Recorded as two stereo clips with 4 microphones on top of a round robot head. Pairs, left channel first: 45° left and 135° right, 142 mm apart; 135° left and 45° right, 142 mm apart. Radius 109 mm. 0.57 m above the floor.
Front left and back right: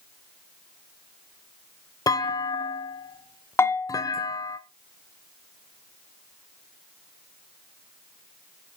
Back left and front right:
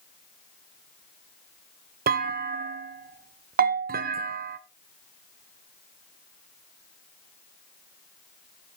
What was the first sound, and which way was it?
A clunk, 20° right.